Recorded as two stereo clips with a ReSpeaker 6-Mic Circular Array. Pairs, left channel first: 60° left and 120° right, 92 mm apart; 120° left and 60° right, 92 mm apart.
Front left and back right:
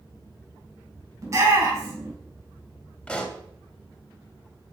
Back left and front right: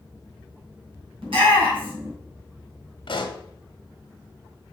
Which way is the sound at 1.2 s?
65° right.